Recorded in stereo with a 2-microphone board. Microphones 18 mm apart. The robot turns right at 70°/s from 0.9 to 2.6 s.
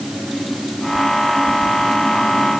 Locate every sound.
Only background noise.